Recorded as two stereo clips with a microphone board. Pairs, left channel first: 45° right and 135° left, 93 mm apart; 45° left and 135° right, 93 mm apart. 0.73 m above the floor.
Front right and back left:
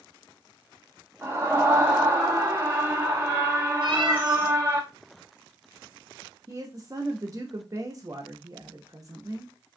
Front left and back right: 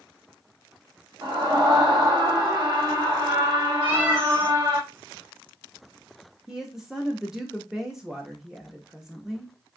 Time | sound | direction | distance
1.2 | a scream | 165° right | 0.9 m
3.8 | a cat meowing | 170° left | 4 m
6.5 | a woman speaking | 145° left | 0.7 m